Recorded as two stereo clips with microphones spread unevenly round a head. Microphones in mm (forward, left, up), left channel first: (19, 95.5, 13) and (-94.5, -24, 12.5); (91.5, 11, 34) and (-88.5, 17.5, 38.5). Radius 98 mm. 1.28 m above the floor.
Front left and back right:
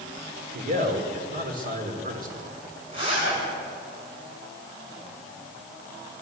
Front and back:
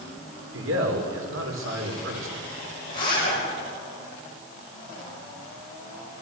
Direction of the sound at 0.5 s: 165° right.